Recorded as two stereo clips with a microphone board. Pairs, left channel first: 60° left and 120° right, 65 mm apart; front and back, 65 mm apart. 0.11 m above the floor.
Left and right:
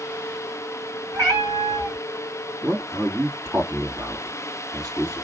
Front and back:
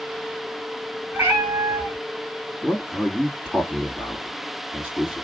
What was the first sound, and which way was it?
A cat meowing, 120° right.